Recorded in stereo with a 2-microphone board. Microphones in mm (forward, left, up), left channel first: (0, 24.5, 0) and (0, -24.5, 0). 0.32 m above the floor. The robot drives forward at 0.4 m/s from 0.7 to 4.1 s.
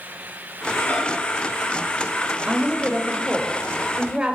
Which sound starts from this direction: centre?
A woman speaking, at 2.5 s.